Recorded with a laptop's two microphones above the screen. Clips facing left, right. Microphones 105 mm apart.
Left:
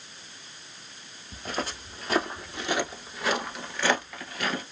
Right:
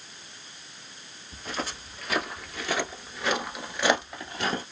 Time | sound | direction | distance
1.3 | footsteps | 50° left (ahead or behind) | 1.4 m